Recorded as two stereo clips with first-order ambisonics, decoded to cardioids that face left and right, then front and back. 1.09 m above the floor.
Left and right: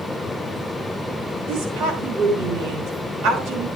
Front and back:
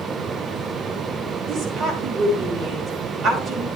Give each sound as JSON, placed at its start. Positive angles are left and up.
{"t": 1.5, "sound": "a woman speaking", "azimuth_deg": -110, "distance_m": 5.0}